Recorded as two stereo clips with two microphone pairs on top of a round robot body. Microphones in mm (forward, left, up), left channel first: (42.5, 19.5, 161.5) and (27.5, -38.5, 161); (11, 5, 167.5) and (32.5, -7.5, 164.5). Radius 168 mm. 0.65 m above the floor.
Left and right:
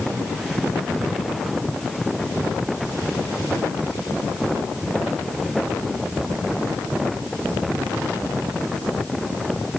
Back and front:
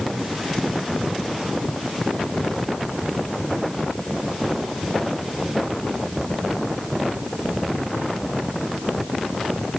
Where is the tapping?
I don't hear tapping.